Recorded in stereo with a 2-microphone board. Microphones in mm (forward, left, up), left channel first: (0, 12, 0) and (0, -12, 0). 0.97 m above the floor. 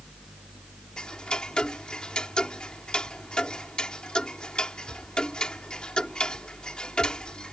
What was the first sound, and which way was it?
Ticking, 45° left (ahead or behind).